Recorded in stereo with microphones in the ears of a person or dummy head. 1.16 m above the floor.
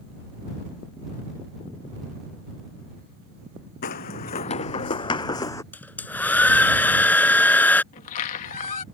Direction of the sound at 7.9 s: 45° left (ahead or behind).